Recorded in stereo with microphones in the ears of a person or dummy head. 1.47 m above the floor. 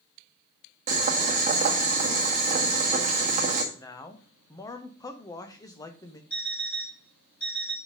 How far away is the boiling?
About 1.6 m.